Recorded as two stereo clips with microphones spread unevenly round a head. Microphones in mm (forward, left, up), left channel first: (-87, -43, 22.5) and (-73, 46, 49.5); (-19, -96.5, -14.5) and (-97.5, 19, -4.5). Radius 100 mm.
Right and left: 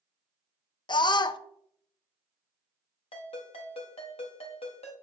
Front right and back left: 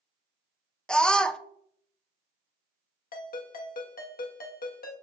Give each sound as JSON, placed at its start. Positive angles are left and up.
{"t": 0.9, "sound": "a scream", "azimuth_deg": -140, "distance_m": 0.7}
{"t": 3.1, "sound": "a ringtone", "azimuth_deg": -75, "distance_m": 1.2}